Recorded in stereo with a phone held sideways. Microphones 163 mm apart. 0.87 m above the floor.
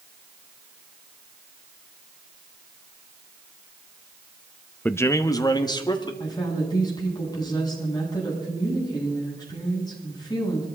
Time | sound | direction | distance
4.8 | a man speaking | 10° left (ahead or behind) | 0.7 m
6.2 | a woman speaking | 25° left (ahead or behind) | 7 m